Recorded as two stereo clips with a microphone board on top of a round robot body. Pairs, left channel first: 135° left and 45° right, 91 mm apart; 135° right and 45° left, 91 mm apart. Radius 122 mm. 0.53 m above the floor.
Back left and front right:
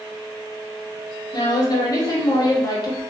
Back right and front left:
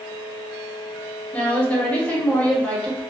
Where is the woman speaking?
155° left, 1.2 m.